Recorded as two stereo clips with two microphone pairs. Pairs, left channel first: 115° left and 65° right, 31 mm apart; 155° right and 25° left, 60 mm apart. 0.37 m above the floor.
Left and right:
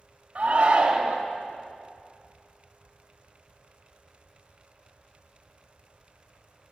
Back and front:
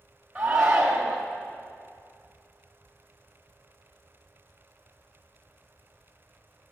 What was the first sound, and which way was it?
A shout, 55° right.